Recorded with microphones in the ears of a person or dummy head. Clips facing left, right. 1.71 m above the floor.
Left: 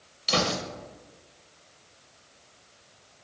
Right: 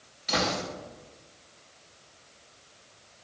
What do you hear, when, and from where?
0.3 s a gunshot: 45° left (ahead or behind), 1.5 m